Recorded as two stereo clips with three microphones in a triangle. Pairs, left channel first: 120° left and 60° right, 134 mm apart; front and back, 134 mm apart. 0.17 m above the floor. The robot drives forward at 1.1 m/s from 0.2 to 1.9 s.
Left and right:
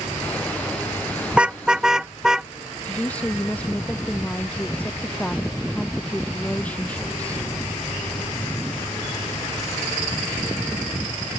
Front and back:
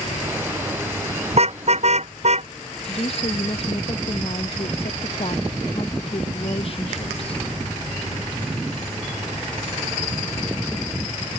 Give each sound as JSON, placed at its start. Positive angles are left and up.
{"t": 1.3, "sound": "a car horn", "azimuth_deg": -140}
{"t": 2.8, "sound": "a woman speaking", "azimuth_deg": 40}